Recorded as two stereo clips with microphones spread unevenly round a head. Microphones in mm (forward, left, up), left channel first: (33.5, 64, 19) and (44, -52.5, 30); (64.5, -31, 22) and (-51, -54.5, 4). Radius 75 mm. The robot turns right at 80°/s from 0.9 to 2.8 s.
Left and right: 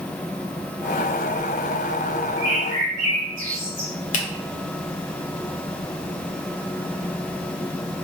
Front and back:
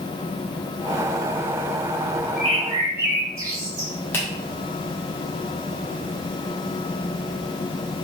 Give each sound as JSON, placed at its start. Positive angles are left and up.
{"t": 2.4, "sound": "a bird", "azimuth_deg": -150, "distance_m": 2.0}
{"t": 4.1, "sound": "a finger snap", "azimuth_deg": 85, "distance_m": 1.1}